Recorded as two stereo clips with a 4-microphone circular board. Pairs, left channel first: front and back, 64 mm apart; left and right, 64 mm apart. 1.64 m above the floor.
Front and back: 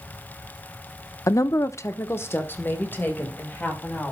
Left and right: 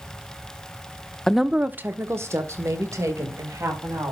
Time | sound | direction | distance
1.3 | a woman speaking | 10° left | 0.5 m